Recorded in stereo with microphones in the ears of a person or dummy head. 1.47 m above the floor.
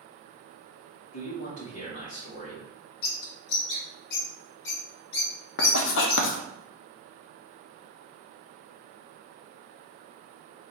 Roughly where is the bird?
Left.